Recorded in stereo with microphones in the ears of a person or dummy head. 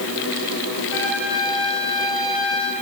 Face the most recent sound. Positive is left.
turn(degrees=70)  # may be behind; listen again after turning